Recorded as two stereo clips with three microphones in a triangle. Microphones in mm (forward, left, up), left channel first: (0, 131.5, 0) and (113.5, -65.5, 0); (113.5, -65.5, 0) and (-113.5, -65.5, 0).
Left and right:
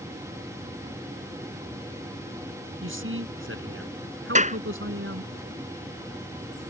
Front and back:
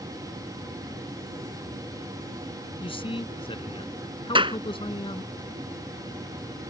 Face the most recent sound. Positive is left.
turn(degrees=-115)